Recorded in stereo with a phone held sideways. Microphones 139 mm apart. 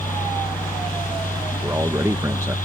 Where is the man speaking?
20° right (ahead or behind).